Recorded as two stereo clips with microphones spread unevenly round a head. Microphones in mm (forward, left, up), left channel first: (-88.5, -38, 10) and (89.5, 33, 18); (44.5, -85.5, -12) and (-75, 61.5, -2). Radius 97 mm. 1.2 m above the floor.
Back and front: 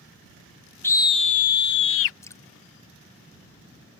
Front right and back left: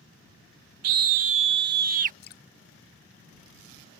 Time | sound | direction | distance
0.8 | a scream | 120° left | ?
2.2 | dripping | 85° right | ?